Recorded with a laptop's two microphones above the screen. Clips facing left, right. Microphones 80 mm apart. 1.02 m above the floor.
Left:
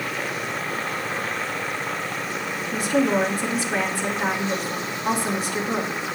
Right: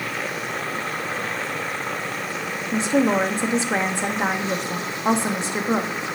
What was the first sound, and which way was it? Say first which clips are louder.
A woman speaking: right 2 dB; 25° right (ahead or behind).